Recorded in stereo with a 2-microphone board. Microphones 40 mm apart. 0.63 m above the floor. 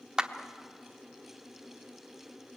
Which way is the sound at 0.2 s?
20° right (ahead or behind).